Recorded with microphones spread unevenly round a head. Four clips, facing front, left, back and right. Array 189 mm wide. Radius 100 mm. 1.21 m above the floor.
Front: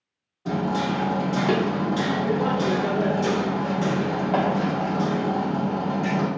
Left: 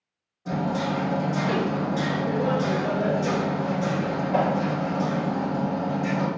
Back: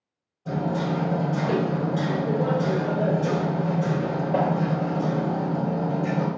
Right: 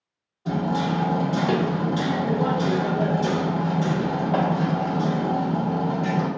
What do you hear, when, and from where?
0.5 s hammering: 15° right, 1.7 m